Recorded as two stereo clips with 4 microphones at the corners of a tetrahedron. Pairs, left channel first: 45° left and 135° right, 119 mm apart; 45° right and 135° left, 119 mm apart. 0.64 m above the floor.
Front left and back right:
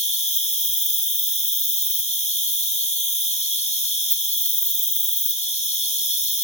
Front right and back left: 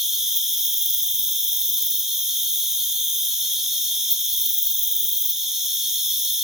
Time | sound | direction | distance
0.0 | an insect | 50° left | 1.7 m